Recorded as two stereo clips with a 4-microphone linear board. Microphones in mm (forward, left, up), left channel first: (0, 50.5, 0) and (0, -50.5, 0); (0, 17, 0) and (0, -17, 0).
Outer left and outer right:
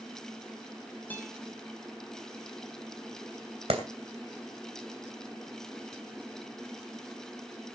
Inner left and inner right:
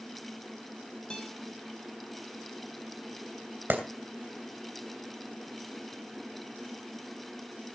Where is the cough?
No cough in this recording.